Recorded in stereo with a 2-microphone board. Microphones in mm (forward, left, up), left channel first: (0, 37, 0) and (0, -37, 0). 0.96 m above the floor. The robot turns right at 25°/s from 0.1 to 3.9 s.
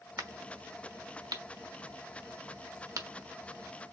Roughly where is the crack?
Right.